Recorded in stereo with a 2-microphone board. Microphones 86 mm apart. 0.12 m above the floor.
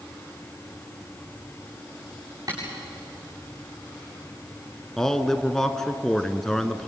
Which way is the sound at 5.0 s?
5° left (ahead or behind).